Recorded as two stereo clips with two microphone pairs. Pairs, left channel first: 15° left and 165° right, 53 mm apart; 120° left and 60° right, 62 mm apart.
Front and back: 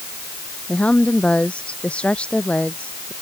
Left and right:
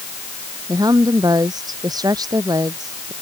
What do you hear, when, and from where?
0.7 s a woman speaking: 55° right